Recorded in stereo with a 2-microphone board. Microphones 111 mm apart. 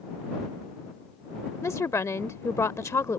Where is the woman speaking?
25° left (ahead or behind).